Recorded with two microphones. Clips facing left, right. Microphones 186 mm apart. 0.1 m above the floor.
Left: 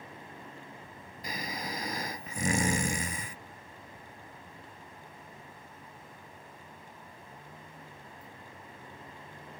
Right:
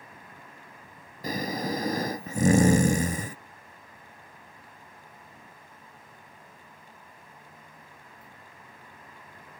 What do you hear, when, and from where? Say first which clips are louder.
0.0 s a vehicle: left 3 dB; 25° left (ahead or behind)
1.2 s snoring: right 9 dB; 45° right (ahead or behind)